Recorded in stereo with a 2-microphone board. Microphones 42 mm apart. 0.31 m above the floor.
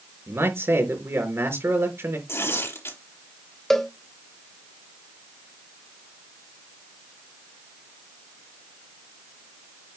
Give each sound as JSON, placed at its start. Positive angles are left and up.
{"t": 0.3, "sound": "a man speaking", "side_deg": -75, "distance_m": 4.5}
{"t": 2.3, "sound": "tearing paper", "side_deg": 80, "distance_m": 4.0}
{"t": 3.7, "sound": "a cowbell", "side_deg": 10, "distance_m": 1.3}